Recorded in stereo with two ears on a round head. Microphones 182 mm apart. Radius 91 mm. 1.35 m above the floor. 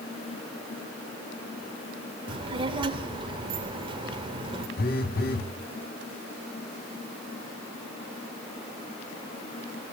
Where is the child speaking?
25° right (ahead or behind), 2.5 m.